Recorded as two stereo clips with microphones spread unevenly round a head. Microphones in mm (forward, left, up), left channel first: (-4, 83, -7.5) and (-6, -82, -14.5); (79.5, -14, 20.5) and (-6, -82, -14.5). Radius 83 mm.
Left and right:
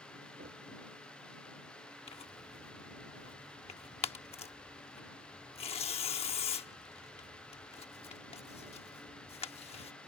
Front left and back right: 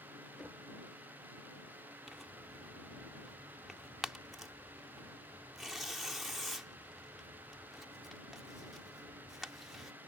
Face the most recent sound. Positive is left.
turn(degrees=105)